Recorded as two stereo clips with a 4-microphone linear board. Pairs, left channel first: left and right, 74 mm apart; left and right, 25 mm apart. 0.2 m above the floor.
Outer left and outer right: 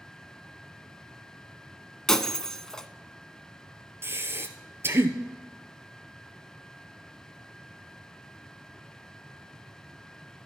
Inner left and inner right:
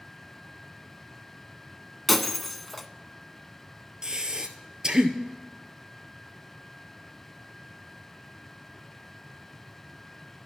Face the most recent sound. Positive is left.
turn(degrees=-35)  # may be behind; listen again after turning